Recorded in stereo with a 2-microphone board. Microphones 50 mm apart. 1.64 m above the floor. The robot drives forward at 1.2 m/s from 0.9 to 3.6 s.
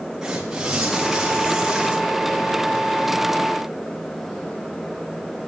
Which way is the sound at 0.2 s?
10° right (ahead or behind).